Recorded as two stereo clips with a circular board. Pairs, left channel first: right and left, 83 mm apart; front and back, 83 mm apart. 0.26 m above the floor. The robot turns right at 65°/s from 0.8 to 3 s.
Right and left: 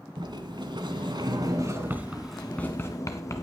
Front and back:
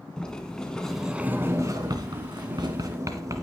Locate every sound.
0.2 s a sliding door: 80° left, 1.5 m; by 3.4 s 135° right, 1.5 m